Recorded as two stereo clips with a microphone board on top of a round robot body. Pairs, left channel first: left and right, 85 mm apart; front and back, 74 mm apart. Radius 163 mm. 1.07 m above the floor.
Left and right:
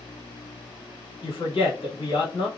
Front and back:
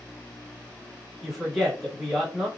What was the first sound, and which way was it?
A woman speaking, 90° left.